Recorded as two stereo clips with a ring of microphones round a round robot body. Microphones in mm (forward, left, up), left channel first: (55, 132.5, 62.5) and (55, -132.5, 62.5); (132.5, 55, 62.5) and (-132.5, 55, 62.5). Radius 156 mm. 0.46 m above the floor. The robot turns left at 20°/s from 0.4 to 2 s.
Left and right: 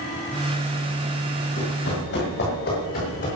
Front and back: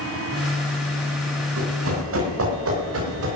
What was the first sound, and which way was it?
Running footsteps, 150° left.